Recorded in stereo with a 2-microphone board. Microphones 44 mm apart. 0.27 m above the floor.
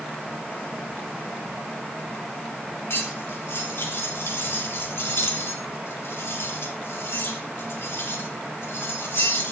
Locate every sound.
2.9 s cutlery clinking: 80° left, 3.5 m